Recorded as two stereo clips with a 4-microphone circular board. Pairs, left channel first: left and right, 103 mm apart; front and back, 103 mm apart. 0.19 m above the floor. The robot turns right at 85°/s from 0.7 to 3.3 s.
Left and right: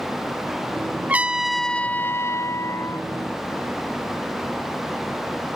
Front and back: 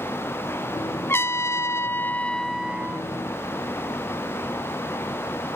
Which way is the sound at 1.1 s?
35° right.